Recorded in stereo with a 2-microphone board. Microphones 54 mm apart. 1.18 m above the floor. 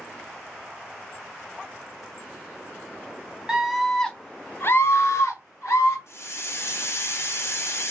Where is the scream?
10° right (ahead or behind), 0.7 m; by 6.0 s 80° left, 1.1 m.